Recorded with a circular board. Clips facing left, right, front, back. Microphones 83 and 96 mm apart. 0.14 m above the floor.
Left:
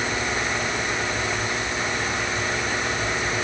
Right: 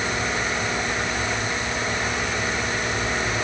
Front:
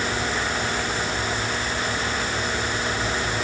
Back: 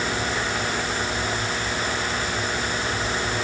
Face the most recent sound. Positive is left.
No sound to turn to.